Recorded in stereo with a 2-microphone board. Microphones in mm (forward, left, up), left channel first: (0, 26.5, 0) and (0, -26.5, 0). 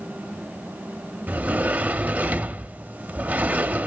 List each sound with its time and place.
1.3 s a sliding door: 30° right (ahead or behind), 0.6 m